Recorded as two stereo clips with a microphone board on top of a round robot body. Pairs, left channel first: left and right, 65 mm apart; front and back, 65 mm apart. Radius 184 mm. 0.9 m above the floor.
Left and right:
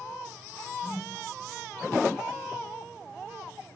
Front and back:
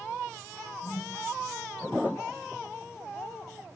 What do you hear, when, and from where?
0.8 s a whoosh: 10° right, 5 m